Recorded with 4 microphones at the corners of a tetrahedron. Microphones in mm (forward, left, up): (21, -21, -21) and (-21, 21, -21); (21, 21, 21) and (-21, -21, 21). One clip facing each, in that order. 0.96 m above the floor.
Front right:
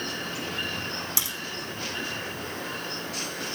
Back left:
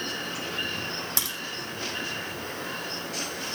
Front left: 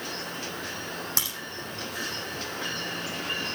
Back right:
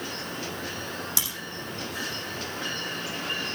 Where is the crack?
95° left, 7.5 m.